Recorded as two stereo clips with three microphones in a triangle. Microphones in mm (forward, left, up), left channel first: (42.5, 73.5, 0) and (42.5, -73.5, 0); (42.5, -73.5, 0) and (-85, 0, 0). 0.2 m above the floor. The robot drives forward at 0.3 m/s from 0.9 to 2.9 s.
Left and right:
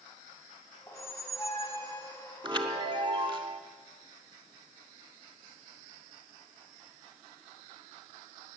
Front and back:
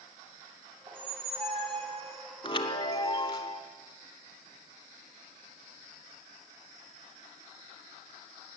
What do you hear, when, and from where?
0.9 s a squeak: 140° left, 1.1 m; by 2.3 s 155° left, 1.3 m
2.4 s a chime: 60° right, 1.1 m; by 3.6 s 70° right, 1.0 m